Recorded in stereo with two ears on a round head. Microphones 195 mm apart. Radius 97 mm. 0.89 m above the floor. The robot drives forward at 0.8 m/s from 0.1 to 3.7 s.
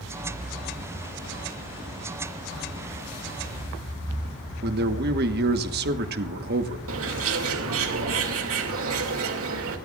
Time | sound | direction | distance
4.6 | a man speaking | 45° right (ahead or behind) | 1.2 m
6.9 | a bird | 70° right (ahead or behind) | 2.5 m